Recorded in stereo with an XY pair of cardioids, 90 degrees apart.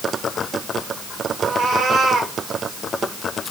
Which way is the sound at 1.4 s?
60° right.